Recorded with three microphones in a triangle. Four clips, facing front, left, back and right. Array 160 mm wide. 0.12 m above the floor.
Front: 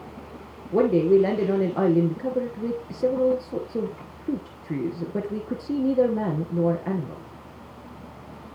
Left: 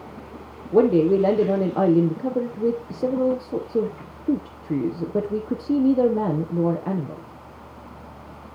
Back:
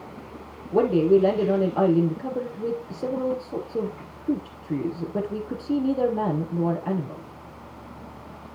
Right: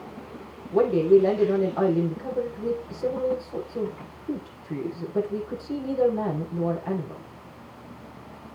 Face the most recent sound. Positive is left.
turn(degrees=85)